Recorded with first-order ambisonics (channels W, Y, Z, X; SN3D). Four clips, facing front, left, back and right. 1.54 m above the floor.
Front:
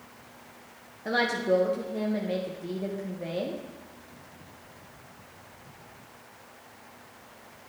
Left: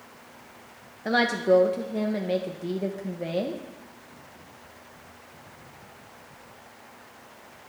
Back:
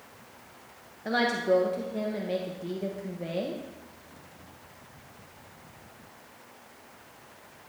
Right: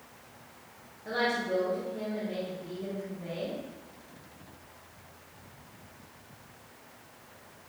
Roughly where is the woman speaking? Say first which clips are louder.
Left 8 dB, even; left.